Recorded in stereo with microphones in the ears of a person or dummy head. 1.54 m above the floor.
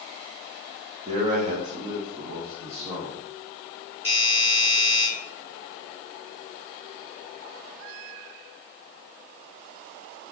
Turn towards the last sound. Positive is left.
turn(degrees=-15)  # may be behind; listen again after turning